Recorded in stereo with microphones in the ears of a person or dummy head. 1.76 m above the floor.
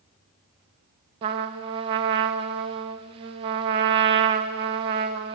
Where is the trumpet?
25° right (ahead or behind), 0.9 m.